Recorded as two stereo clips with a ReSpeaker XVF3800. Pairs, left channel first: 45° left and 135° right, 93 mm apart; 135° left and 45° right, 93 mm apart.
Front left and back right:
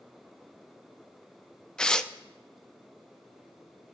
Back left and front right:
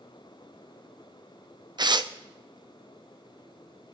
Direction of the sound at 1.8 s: 35° right.